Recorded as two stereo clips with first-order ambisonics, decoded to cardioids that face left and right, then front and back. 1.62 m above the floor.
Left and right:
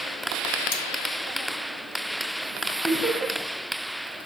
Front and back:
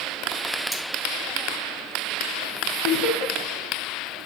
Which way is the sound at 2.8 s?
10° right.